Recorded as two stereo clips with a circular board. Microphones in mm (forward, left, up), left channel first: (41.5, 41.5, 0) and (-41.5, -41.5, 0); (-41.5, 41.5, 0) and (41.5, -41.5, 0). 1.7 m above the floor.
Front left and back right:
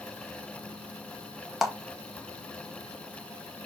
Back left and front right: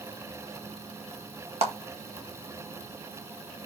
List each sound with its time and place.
1.6 s a clap: 45° right, 1.4 m